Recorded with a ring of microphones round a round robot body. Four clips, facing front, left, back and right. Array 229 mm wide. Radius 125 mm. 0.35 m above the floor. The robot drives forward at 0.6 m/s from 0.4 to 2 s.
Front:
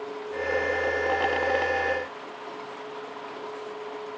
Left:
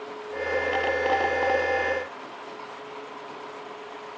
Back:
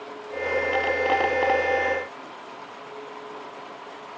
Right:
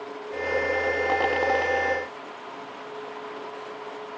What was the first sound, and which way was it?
Only background noise.